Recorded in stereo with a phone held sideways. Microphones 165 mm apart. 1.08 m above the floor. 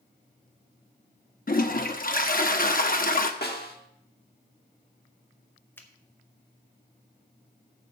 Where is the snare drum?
70° left (ahead or behind), 1.4 m.